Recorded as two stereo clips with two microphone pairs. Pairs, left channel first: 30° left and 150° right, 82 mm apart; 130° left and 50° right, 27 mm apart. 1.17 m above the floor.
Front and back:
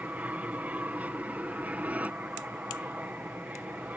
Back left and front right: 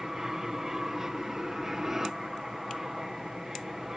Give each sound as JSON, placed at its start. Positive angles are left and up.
{"t": 0.0, "sound": "an aircraft", "azimuth_deg": -105}